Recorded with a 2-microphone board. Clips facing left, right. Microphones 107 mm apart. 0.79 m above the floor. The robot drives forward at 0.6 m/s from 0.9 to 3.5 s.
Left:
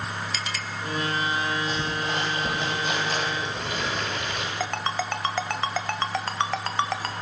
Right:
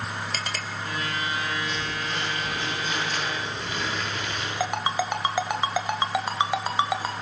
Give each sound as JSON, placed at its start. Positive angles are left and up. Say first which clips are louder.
{"t": 0.3, "sound": "a clink", "louder": "even", "side_deg": -45, "distance_m": 1.9}
{"t": 1.7, "sound": "crumpling", "louder": "left 3 dB", "side_deg": 80, "distance_m": 9.0}
{"t": 4.6, "sound": "a ringtone", "louder": "right 4 dB", "side_deg": -10, "distance_m": 1.6}